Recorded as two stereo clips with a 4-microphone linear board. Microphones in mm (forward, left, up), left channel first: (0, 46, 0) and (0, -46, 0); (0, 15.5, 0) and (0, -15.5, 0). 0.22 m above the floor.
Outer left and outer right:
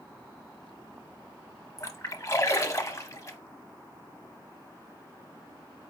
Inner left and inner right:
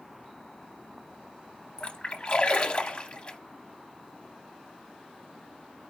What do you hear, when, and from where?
1.8 s a splash: 35° left (ahead or behind), 0.7 m